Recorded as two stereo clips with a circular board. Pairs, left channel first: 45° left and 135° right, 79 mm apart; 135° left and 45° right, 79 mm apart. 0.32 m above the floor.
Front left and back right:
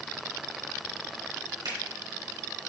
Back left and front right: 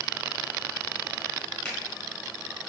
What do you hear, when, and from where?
1.6 s a finger snap: 150° right, 3 m